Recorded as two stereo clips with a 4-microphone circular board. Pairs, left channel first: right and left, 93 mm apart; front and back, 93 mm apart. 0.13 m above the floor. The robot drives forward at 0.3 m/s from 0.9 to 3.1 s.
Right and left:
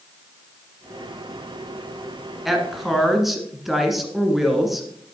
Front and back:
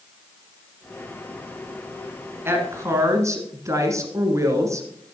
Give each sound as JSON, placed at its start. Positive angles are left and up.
{"t": 2.5, "sound": "a woman speaking", "azimuth_deg": 175, "distance_m": 1.5}